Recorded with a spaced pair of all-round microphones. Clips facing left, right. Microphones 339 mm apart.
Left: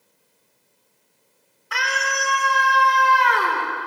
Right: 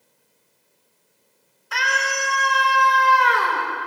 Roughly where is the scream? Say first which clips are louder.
Even; left.